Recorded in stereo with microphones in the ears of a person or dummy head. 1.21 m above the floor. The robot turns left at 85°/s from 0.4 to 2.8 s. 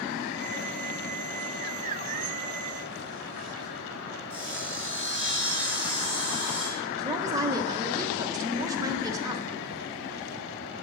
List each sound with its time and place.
4.3 s sawing: 10° left (ahead or behind), 3.5 m
7.0 s a woman speaking: 20° right (ahead or behind), 1.0 m